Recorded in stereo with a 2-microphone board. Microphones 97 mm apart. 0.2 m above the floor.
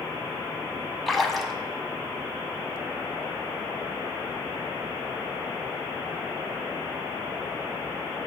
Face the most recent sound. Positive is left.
turn(degrees=0)  # may be behind; listen again after turning